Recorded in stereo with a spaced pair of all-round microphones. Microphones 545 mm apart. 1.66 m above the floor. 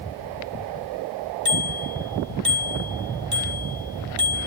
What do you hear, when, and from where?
1.4 s a bicycle bell: 70° right (ahead or behind), 2.5 m